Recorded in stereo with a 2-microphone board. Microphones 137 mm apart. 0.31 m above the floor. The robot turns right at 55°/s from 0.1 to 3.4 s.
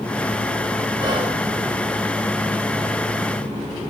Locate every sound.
1.0 s whispering: 30° right (ahead or behind), 4.5 m; by 1.4 s 50° right (ahead or behind), 4.5 m